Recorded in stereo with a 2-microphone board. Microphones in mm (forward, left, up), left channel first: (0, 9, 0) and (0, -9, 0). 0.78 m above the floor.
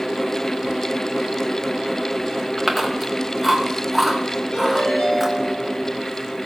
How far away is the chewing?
About 1.9 m.